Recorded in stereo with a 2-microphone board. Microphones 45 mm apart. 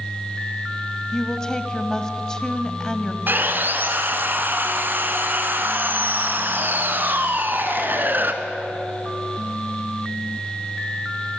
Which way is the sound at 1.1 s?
15° left (ahead or behind).